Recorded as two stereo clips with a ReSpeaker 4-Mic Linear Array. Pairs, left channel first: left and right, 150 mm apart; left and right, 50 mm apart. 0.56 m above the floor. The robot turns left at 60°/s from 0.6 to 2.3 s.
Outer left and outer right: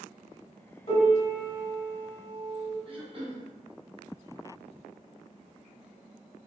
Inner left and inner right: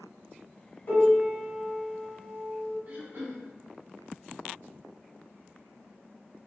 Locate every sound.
0.9 s a piano: 50° left, 1.6 m; by 2.8 s 40° right, 1.6 m
2.9 s throat clearing: 40° right (ahead or behind), 0.7 m